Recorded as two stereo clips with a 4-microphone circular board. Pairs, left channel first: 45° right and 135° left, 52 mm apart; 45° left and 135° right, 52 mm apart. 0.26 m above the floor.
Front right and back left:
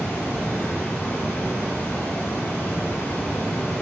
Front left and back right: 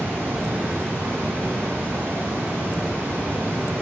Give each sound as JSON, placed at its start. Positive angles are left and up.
{"t": 0.0, "sound": "running water", "azimuth_deg": -90, "distance_m": 2.5}